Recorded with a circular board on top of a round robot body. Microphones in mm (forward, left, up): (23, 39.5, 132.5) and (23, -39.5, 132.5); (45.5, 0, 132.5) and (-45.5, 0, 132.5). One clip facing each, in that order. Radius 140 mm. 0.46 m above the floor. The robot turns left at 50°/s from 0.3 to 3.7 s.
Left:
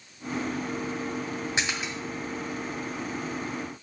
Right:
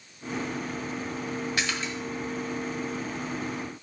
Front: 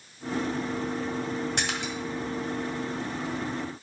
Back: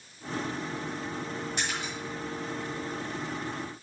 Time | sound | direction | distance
1.6 | a splash | 20° left | 1.9 m